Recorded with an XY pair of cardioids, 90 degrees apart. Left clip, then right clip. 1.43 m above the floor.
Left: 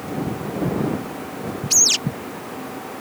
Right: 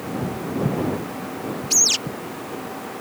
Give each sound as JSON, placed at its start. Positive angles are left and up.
{"t": 1.7, "sound": "a bird", "azimuth_deg": 15}